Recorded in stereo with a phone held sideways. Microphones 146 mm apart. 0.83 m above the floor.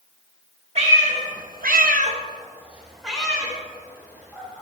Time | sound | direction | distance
0.8 | a cat meowing | 50° right (ahead or behind) | 1.7 m